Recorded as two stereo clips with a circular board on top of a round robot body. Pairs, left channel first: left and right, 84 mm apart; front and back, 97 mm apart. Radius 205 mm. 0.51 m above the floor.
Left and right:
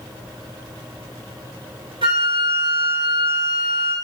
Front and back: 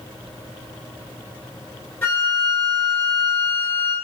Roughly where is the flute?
Right.